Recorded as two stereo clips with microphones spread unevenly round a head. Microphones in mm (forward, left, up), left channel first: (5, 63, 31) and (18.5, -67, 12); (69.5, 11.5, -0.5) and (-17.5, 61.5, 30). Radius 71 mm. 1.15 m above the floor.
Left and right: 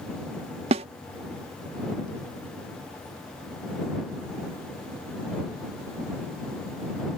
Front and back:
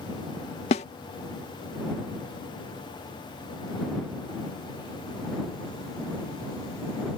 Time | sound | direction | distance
0.7 | a snare drum | 50° right | ?